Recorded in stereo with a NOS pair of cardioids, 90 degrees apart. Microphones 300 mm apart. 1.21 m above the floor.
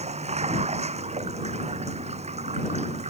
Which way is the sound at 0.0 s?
20° right.